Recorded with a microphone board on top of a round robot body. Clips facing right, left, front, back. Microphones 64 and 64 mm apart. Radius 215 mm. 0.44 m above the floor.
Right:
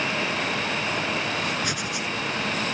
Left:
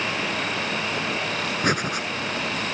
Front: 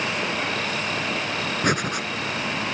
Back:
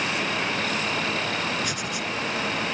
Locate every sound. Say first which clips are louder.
1.6 s breathing: left 5 dB, front 6 dB; 40° left